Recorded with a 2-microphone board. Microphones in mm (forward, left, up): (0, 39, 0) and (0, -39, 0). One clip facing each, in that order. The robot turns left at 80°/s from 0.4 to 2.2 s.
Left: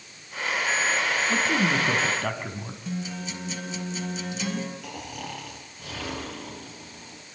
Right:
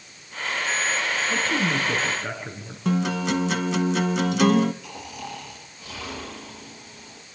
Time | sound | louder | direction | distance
1.3 | a man speaking | left 1 dB | 175° left | 3.5 m
2.9 | a guitar | right 11 dB | 85° right | 1.2 m
4.8 | snoring | even | 60° left (ahead or behind) | 5.5 m